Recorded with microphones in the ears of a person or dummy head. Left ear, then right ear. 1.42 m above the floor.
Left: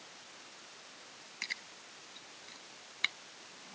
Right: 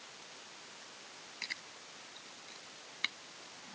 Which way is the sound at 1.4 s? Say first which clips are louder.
Left 2 dB; centre (ahead or behind).